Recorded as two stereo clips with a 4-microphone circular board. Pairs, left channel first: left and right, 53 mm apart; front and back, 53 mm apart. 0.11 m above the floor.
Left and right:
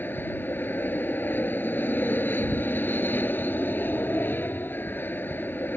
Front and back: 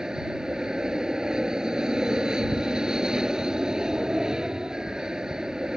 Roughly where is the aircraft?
Left.